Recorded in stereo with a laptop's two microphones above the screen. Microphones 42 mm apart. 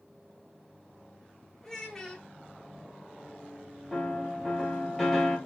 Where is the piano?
5° left (ahead or behind), 0.8 m.